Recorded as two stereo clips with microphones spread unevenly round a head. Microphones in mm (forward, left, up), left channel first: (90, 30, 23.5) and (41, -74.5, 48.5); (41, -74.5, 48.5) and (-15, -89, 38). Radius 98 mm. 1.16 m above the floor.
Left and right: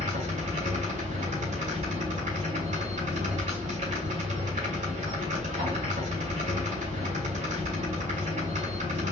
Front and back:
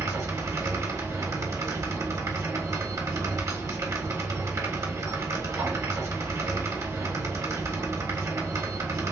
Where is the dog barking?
I don't hear a dog barking.